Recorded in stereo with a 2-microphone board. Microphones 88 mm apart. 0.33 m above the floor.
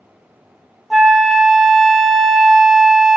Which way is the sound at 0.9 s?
Centre (ahead or behind).